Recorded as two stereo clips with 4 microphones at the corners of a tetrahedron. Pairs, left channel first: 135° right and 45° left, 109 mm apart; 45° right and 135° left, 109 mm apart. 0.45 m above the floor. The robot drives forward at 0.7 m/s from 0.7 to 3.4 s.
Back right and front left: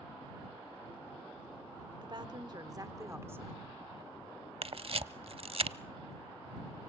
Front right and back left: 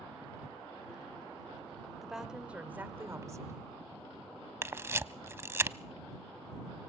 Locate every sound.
2.0 s a woman speaking: 50° left, 1.7 m; by 3.6 s 100° left, 1.5 m
4.6 s a camera shutter: 70° left, 0.5 m